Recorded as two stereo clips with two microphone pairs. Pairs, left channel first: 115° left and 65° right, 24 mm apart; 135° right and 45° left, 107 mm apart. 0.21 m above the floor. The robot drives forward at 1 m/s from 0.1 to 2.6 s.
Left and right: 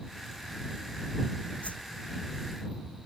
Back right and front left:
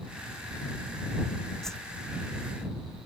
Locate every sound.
1.6 s a whoosh: 140° left